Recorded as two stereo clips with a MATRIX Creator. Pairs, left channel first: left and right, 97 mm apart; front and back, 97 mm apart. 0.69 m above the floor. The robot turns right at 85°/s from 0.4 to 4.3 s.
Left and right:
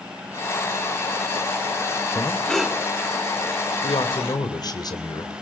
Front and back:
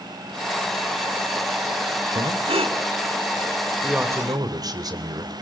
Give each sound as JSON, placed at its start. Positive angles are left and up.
{"t": 2.1, "sound": "breathing", "azimuth_deg": 140, "distance_m": 1.4}
{"t": 3.8, "sound": "a man speaking", "azimuth_deg": 95, "distance_m": 2.5}